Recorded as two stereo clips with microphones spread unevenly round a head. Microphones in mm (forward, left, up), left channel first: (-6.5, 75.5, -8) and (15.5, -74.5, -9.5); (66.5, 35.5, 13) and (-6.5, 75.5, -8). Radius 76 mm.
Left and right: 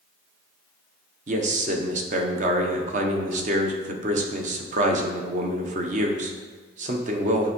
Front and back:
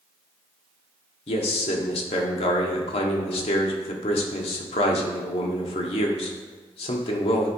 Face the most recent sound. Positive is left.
turn(degrees=-40)